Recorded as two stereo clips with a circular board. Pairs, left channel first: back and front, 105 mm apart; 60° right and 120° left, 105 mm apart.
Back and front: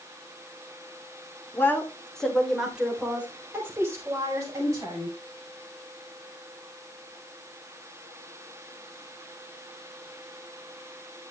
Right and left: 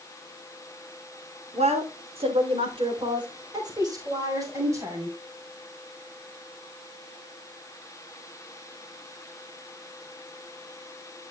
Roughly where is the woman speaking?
Behind left.